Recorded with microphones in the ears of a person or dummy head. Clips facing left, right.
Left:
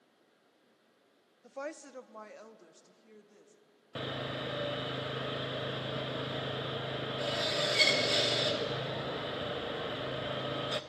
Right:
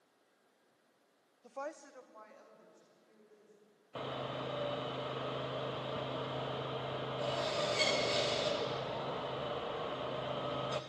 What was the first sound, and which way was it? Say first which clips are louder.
A woman speaking: left 3 dB; 5° left (ahead or behind).